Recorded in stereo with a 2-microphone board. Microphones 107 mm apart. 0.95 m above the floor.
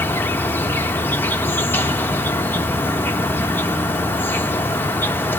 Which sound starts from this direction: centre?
An insect, at 0.0 s.